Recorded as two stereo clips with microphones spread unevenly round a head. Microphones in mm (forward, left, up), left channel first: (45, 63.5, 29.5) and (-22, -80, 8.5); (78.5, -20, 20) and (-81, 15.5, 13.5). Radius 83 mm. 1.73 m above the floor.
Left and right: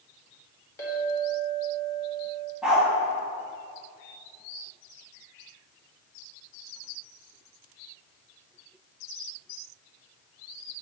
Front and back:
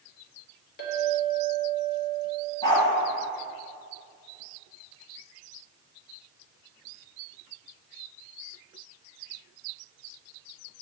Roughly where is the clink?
Ahead.